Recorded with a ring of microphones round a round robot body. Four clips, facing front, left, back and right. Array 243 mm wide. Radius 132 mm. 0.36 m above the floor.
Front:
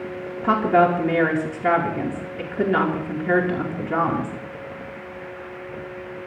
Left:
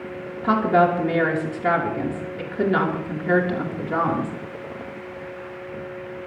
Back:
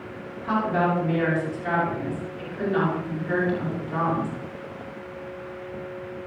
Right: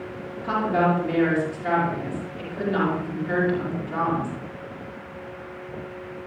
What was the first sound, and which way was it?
A woman speaking, 35° left.